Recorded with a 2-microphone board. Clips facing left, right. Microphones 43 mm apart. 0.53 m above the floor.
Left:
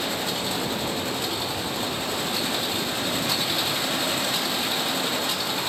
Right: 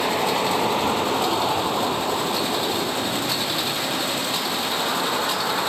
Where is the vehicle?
70° right (ahead or behind); by 5.7 s 40° right (ahead or behind).